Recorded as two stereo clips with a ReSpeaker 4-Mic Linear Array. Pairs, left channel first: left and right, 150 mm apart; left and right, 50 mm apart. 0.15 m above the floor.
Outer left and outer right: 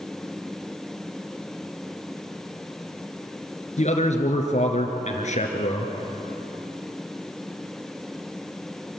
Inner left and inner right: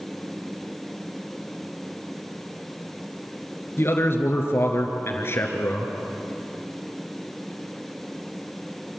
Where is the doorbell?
I don't hear a doorbell.